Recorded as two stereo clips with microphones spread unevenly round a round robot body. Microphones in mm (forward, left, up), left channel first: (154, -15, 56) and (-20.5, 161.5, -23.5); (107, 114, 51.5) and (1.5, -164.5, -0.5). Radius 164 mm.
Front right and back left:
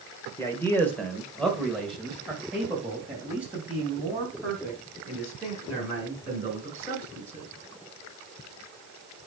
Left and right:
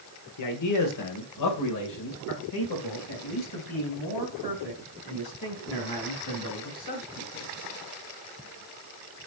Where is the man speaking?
45° left, 1.8 m; by 7.5 s 60° left, 6 m.